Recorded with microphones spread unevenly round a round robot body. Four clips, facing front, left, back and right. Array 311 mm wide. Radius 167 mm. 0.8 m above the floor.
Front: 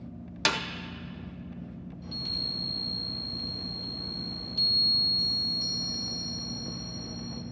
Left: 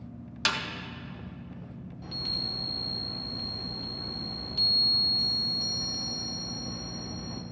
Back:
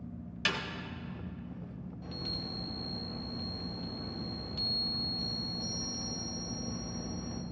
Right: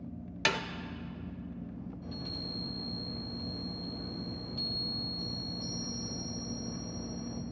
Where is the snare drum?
25° right, 0.6 m.